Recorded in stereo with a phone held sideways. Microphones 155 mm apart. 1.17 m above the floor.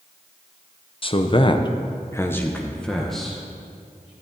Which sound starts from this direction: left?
A man speaking, at 1.0 s.